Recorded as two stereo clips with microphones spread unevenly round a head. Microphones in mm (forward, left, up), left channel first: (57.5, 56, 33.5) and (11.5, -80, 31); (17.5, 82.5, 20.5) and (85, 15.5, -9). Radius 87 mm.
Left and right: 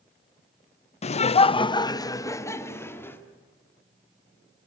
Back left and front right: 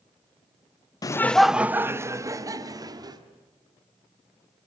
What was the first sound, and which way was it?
Laughter, 80° left.